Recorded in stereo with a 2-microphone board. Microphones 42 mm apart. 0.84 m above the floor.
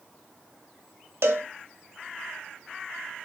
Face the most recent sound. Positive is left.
turn(degrees=-70)  # may be behind; listen again after turning